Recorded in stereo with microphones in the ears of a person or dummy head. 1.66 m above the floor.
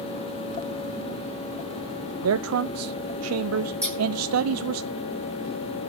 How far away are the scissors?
About 9.5 m.